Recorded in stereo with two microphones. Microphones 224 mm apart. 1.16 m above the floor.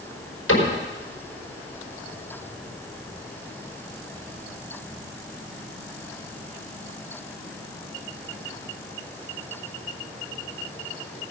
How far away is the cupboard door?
About 4.5 m.